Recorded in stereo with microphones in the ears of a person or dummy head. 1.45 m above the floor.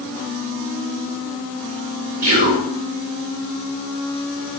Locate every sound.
2.2 s whispering: 35° right (ahead or behind), 0.5 m